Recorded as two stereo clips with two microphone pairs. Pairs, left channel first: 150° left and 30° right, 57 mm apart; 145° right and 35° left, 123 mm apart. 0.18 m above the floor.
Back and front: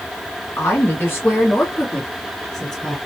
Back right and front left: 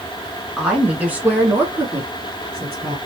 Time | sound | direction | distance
0.6 | a woman speaking | 120° left | 2.5 m